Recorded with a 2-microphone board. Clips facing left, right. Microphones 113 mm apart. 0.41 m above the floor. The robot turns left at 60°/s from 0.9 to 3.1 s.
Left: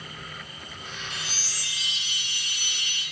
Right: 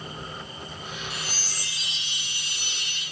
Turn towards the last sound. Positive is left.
turn(degrees=-130)